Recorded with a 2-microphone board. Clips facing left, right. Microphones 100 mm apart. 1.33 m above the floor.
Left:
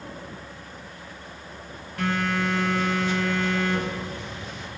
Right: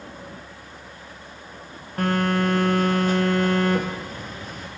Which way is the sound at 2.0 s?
45° right (ahead or behind).